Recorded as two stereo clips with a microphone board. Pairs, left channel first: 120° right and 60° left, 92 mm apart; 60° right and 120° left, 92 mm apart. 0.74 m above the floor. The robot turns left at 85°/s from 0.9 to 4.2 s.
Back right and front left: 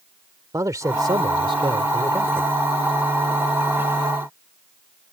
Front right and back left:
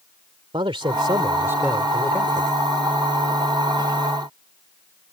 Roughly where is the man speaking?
Left.